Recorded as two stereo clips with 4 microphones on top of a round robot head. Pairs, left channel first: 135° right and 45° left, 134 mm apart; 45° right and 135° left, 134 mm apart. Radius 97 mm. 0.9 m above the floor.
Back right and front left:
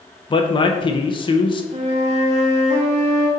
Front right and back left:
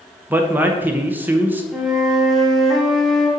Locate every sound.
0.3 s a man speaking: 155° right, 0.9 m
1.7 s a flute: 45° left, 1.2 m